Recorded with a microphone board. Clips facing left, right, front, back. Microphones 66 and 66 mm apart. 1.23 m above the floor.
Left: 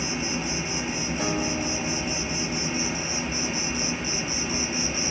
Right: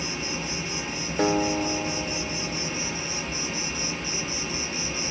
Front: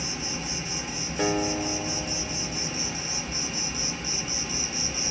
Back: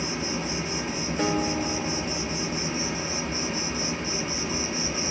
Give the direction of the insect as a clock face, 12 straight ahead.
7 o'clock.